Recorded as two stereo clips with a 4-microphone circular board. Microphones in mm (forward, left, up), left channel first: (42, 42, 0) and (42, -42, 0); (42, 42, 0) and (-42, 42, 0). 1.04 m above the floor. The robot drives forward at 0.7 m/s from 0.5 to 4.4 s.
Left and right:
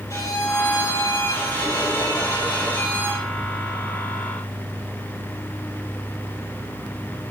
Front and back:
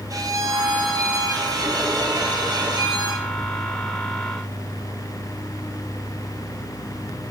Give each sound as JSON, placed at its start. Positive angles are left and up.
{"t": 0.1, "sound": "a violin", "azimuth_deg": 140, "distance_m": 3.0}